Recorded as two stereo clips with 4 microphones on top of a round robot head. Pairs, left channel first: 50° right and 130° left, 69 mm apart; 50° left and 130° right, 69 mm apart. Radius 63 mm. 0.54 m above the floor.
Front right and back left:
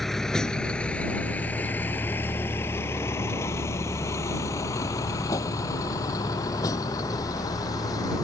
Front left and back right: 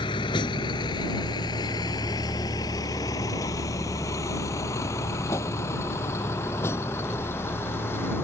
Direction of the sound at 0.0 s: 35° left.